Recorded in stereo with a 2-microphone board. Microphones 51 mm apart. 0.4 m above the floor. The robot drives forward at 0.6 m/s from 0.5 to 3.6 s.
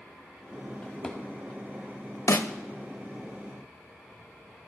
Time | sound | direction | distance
0.8 | a drawer | 20° left (ahead or behind) | 1.3 m
2.3 | a snare drum | 70° left (ahead or behind) | 0.5 m